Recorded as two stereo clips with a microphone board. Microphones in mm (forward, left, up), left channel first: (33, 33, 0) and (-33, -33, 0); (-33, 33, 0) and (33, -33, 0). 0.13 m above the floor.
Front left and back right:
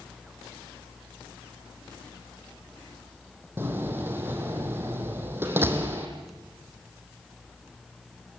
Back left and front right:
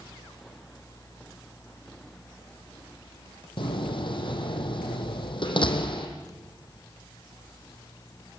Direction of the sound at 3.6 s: 160° left.